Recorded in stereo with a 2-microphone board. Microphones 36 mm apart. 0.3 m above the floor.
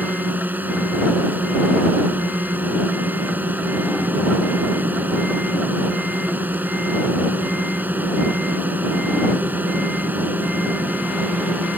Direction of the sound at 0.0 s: 55° right (ahead or behind).